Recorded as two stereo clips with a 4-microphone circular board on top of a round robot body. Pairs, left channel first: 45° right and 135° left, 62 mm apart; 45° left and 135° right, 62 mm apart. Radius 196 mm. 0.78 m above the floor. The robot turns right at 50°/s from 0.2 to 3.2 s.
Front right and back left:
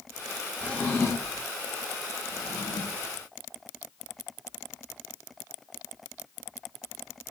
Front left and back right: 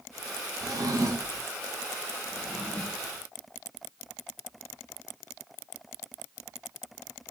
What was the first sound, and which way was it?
A drawer, 120° right.